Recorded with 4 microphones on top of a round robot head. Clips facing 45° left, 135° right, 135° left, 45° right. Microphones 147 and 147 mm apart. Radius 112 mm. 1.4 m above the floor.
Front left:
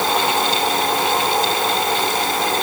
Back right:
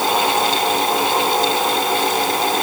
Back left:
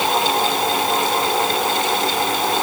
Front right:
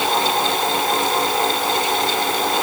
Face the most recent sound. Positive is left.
No sound to turn to.